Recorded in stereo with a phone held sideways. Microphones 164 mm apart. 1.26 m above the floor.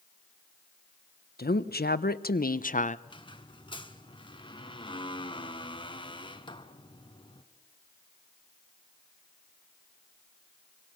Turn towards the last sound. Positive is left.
turn(degrees=30)  # may be behind; listen again after turning